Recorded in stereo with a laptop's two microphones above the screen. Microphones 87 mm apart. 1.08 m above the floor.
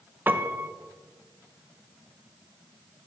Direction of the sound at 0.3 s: 25° right (ahead or behind).